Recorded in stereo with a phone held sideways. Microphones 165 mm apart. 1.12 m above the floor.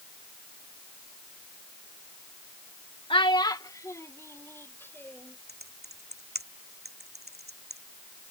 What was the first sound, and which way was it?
A child speaking, 30° left (ahead or behind).